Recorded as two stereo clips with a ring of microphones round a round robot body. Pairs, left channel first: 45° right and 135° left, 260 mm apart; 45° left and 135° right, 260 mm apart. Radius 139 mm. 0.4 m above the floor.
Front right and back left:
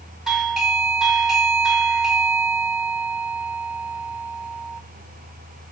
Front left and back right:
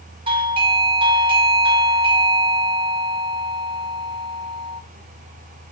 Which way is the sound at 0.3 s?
140° right.